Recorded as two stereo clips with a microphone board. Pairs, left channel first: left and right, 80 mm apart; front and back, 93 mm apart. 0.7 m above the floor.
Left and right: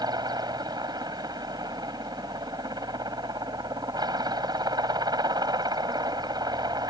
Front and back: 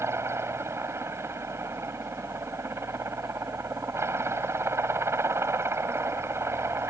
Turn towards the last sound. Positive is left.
turn(degrees=-120)